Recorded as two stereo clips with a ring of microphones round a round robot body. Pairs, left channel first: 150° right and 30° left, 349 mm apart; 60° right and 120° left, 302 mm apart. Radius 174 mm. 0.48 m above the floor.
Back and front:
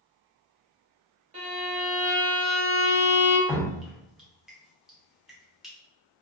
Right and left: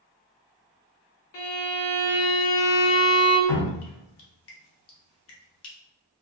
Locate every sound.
1.3 s a violin: 40° right, 1.0 m
3.5 s dripping: 60° right, 0.6 m